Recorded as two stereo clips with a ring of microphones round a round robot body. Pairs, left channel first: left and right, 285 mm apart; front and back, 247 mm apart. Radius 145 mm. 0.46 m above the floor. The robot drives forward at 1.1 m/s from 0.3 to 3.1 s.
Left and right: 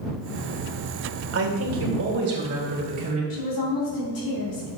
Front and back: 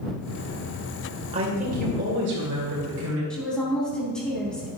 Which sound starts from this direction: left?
A woman speaking, at 3.3 s.